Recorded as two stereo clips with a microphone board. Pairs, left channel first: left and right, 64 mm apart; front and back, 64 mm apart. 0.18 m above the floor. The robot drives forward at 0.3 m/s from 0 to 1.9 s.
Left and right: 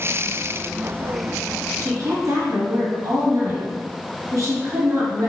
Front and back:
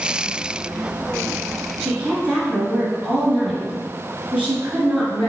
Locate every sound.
1.8 s a woman speaking: 110° right, 1.9 m